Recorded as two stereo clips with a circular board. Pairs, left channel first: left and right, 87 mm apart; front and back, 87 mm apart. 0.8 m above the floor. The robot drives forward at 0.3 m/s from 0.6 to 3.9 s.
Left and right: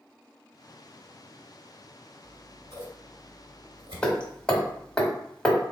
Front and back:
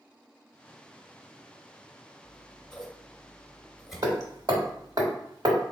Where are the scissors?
75° right, 1.6 m; by 5.0 s 95° right, 1.5 m.